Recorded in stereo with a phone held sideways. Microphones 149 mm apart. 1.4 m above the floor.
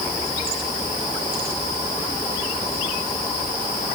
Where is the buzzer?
No buzzer in this recording.